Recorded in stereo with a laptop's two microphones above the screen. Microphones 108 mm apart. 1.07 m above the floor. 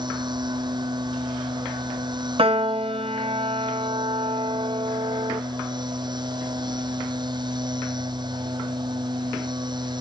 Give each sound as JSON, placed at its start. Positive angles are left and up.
{"t": 0.0, "sound": "a machine running", "side_deg": -45}
{"t": 2.4, "sound": "a piano", "side_deg": -60}